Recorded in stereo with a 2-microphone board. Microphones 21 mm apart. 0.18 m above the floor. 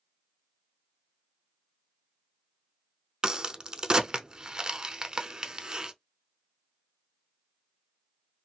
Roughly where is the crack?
Right.